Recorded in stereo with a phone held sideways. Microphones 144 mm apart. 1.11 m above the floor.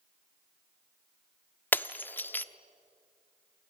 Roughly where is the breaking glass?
Centre.